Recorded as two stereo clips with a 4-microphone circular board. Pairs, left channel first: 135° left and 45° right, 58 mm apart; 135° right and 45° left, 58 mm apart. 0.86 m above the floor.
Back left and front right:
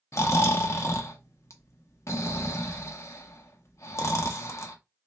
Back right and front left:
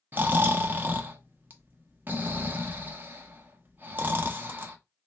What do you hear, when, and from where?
0.1 s snoring: 100° left, 0.7 m